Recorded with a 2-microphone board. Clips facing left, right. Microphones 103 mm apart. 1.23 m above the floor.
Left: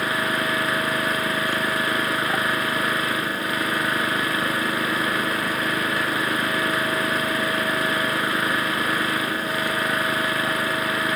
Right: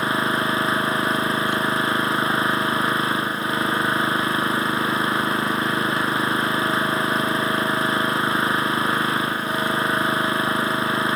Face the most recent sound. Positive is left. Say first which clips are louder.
# right 2 dB
turn(degrees=-25)  # may be behind; listen again after turning